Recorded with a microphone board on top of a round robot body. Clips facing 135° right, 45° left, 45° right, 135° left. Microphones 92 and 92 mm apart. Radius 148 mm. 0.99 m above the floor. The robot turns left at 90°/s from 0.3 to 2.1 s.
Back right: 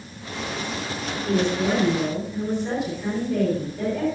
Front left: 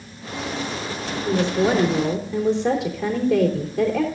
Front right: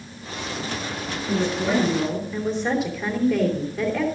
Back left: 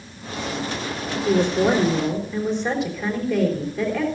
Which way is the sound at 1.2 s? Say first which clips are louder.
Front left 2 dB, back left 5 dB; 120° left.